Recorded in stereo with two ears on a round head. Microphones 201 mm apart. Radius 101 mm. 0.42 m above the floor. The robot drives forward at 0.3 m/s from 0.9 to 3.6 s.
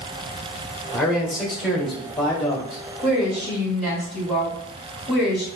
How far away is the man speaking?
About 1.3 m.